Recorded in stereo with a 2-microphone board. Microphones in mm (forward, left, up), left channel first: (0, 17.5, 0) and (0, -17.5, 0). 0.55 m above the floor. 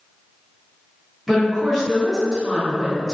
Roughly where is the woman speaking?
Centre.